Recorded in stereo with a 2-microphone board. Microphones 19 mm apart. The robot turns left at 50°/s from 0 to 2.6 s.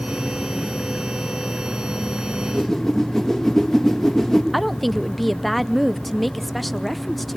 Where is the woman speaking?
10° left (ahead or behind), 0.7 m.